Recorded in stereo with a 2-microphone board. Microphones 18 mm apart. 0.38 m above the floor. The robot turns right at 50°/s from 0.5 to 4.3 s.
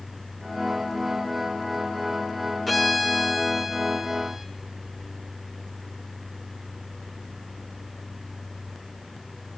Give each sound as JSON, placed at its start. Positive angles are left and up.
{"t": 2.7, "sound": "a violin", "side_deg": 0, "distance_m": 1.1}